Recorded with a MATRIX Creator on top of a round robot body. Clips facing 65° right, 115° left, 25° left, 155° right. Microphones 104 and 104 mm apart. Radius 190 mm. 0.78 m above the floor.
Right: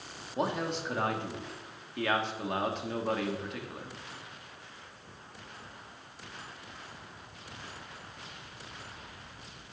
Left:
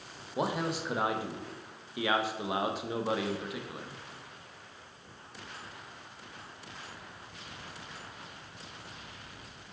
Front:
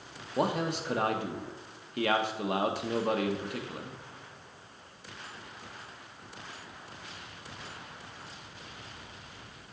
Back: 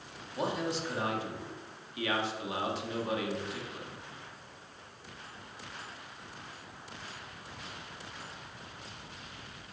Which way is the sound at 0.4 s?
30° left.